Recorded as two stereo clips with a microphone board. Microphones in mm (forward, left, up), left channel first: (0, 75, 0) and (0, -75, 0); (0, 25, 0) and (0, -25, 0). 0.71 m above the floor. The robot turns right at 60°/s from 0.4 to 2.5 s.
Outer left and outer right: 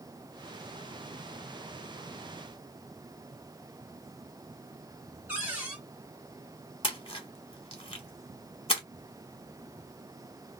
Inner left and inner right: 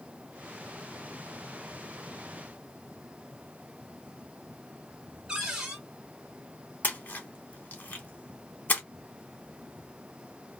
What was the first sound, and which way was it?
A cupboard door, 10° right (ahead or behind).